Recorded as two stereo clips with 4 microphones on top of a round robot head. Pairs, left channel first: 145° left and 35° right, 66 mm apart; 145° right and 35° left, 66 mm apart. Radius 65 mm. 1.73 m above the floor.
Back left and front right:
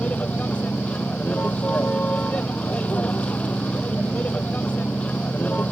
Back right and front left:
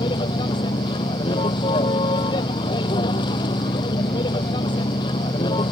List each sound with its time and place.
0.0 s a vehicle: 145° right